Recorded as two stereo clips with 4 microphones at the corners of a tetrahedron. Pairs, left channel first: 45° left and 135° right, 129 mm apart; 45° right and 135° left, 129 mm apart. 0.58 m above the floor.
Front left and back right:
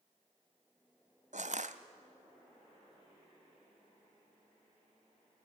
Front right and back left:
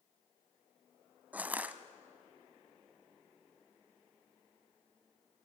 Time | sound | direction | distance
1.3 | crushing | 145° right | 0.9 m